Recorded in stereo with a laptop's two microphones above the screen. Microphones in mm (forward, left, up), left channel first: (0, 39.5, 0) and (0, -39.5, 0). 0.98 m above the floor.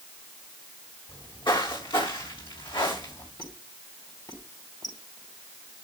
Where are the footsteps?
65° left (ahead or behind), 6 m; by 3.3 s 75° left (ahead or behind), 7.5 m.